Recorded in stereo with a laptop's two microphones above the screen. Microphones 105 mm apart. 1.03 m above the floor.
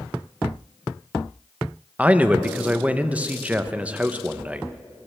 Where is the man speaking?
15° right (ahead or behind), 0.6 m.